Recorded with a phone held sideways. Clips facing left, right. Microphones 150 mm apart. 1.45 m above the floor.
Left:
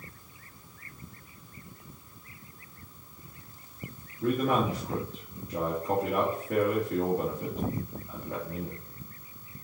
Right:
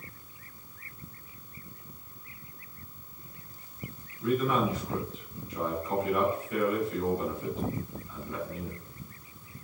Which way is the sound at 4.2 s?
80° left.